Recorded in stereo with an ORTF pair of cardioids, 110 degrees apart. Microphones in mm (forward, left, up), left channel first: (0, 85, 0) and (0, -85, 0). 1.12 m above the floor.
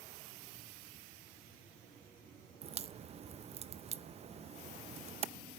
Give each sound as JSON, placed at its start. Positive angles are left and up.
{"t": 2.6, "sound": "a crack", "azimuth_deg": -40, "distance_m": 0.6}